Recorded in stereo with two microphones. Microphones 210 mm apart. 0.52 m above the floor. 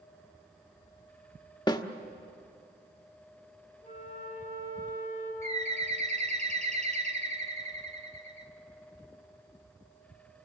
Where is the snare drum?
20° left (ahead or behind), 1.0 m.